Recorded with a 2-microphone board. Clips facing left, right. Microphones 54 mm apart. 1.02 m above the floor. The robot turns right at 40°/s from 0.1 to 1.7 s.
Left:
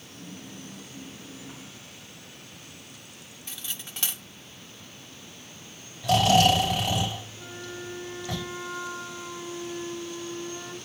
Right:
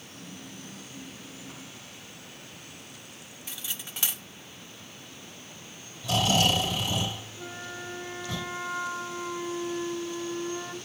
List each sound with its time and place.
3.5 s cutlery clinking: 5° right (ahead or behind), 0.7 m
6.0 s snoring: 55° left (ahead or behind), 4 m
7.4 s a flute: 30° right (ahead or behind), 1.2 m